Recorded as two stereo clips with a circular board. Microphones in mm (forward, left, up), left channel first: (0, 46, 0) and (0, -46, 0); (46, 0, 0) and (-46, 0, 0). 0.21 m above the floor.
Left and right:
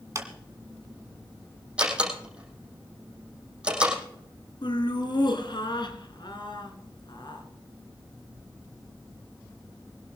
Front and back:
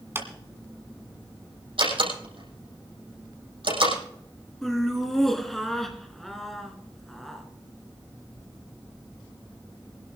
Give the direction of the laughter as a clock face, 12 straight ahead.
9 o'clock.